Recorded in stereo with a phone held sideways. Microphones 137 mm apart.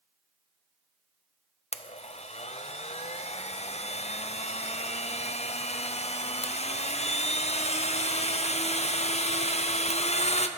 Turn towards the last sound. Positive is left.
turn(degrees=50)  # may be behind; listen again after turning